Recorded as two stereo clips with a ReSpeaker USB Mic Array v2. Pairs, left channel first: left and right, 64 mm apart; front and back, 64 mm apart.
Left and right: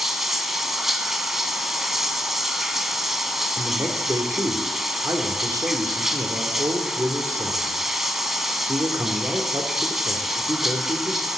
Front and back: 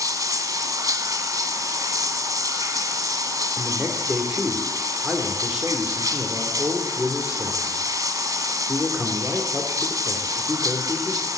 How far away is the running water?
About 1.1 m.